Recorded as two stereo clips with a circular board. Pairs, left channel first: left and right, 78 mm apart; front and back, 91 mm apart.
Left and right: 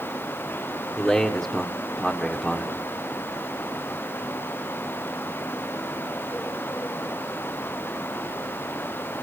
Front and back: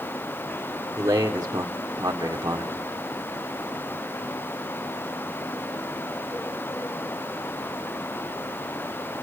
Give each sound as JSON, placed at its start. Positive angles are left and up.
{"t": 1.0, "sound": "a man speaking", "azimuth_deg": 160, "distance_m": 1.4}